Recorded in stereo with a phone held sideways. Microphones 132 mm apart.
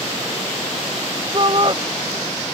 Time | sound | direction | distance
1.3 | a shout | 40° right (ahead or behind) | ?